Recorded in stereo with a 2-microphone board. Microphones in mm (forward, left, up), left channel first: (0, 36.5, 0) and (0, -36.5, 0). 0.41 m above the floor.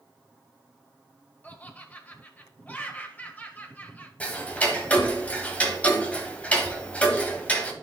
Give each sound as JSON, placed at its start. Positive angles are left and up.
{"t": 1.4, "sound": "laughter", "side_deg": 20, "distance_m": 1.5}
{"t": 4.2, "sound": "ticking", "side_deg": 20, "distance_m": 1.4}